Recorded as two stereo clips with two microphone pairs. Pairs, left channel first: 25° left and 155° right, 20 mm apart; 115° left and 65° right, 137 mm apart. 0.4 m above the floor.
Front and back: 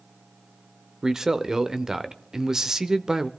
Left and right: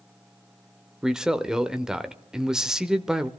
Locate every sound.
1.0 s a man speaking: 150° right, 0.8 m